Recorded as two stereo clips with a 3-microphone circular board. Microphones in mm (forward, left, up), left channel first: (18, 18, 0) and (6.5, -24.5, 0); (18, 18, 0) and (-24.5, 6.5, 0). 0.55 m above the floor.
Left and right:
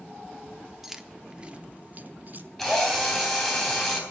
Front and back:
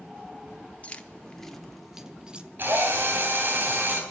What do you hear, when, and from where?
0.8 s keys jangling: 25° right, 0.8 m; by 2.5 s 110° right, 0.9 m
2.6 s a drill: 160° left, 3 m